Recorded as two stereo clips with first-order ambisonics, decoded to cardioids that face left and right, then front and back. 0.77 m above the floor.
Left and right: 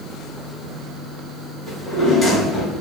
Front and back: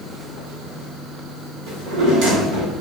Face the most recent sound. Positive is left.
turn(degrees=165)